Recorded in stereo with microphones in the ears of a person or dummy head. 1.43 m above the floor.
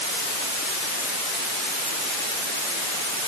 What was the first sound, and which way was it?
Only background noise.